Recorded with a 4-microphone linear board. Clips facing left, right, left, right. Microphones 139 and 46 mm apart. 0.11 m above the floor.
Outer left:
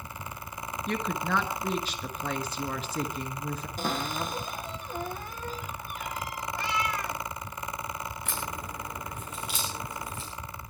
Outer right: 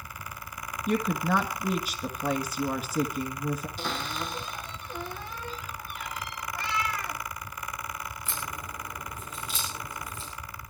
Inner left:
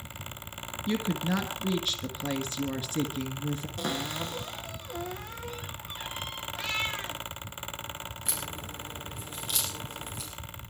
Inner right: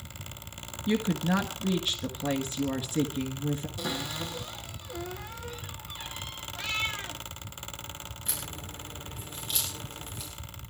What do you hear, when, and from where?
0.9 s a woman speaking: 10° right (ahead or behind), 1.3 m
3.8 s a cupboard door: 45° left (ahead or behind), 2.5 m
6.5 s a cat meowing: 20° left (ahead or behind), 2.5 m
8.2 s a crack: 75° left (ahead or behind), 6 m